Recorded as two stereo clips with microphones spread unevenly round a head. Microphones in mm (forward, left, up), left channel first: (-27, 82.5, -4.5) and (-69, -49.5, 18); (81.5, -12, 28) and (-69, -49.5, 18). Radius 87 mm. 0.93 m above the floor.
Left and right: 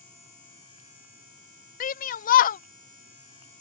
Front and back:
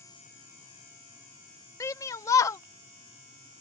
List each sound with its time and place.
1.8 s a shout: 90° left